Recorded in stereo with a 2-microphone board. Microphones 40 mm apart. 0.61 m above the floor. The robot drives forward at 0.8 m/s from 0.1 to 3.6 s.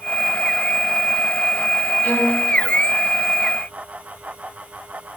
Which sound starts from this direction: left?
A violin, at 2.0 s.